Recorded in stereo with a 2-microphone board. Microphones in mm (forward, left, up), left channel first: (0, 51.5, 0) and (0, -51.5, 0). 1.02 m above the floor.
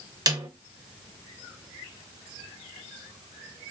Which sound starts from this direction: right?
A snare drum, at 0.3 s.